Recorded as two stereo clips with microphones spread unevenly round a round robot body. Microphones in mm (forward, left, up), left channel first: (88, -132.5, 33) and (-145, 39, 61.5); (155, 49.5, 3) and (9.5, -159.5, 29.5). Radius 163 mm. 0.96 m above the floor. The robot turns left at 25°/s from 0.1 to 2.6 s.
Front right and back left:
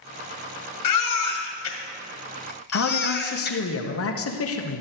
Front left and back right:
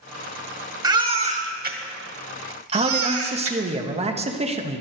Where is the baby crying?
50° right, 2 m; by 3.6 s 90° right, 2 m.